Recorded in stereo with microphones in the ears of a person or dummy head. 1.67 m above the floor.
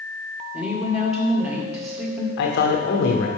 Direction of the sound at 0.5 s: 5° right (ahead or behind).